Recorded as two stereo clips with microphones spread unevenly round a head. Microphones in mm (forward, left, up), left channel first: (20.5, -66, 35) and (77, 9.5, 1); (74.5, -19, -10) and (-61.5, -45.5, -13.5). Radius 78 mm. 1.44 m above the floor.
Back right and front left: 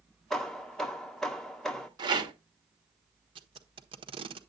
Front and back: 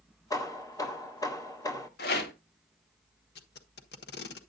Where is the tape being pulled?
20° left, 1.2 m.